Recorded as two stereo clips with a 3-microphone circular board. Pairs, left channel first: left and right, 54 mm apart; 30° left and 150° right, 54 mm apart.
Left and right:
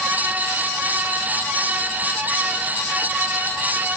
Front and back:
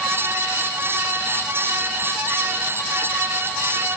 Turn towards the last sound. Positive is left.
No sound to turn to.